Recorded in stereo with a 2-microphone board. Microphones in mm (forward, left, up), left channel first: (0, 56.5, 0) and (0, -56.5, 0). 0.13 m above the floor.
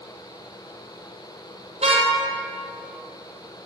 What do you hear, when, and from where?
1.8 s a car horn: 75° right (ahead or behind), 2.5 m